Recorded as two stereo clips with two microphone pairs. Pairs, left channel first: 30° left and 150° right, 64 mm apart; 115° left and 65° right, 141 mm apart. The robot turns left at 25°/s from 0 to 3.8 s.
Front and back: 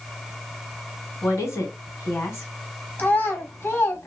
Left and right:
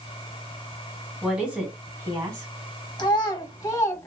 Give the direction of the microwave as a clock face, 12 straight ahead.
I don't hear a microwave.